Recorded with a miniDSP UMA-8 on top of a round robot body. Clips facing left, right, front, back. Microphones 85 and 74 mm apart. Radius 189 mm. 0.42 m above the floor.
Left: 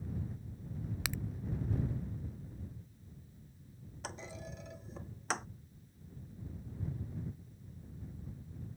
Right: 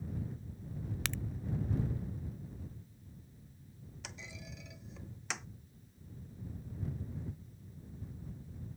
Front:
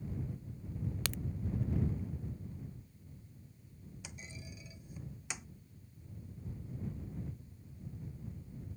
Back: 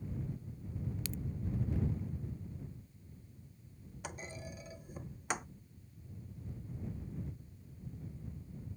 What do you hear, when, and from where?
1.1 s a crack: 10° left
4.0 s a clunk: 140° left